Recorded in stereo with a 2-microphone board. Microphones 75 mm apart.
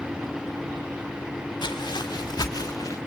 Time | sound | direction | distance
1.6 | footsteps | 80° left | 1.8 m